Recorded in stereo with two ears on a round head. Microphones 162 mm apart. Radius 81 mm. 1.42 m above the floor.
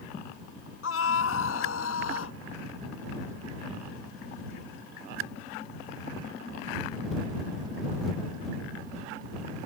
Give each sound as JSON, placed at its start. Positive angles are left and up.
{"t": 0.8, "sound": "a scream", "side_deg": 80}